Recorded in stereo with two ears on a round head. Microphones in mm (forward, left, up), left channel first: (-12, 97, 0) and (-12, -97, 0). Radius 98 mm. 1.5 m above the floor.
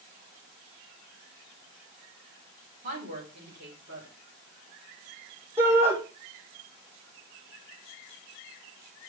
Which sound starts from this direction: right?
A woman speaking, at 2.8 s.